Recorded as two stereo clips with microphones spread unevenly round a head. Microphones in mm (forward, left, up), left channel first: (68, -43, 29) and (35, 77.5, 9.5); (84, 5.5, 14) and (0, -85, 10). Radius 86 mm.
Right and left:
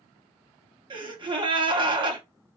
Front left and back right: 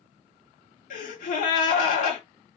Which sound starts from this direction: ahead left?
A gasp, at 0.9 s.